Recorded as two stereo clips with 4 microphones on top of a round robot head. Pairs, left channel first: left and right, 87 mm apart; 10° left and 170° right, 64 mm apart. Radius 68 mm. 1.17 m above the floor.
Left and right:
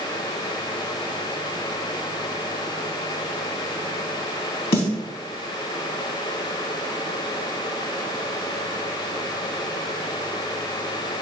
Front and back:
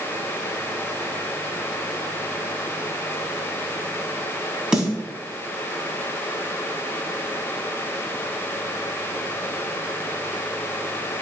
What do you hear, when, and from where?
4.7 s a snare drum: 110° left, 4.5 m